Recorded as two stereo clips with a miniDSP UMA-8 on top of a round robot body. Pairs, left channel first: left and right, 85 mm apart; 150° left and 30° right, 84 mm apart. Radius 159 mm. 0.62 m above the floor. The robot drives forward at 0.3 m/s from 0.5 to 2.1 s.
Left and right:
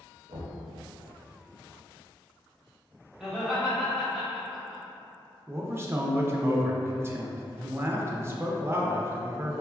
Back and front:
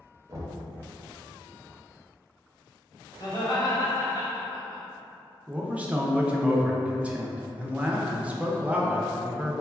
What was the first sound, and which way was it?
Knocking, 85° right.